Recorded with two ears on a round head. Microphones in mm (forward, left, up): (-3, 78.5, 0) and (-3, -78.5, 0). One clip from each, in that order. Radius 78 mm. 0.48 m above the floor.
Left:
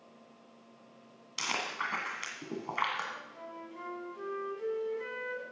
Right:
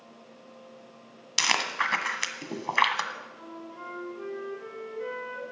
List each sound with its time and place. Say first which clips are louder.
1.4 s chewing: right 9 dB; 50° right (ahead or behind), 1.5 m
3.1 s a flute: right 3 dB; 35° left (ahead or behind), 3.5 m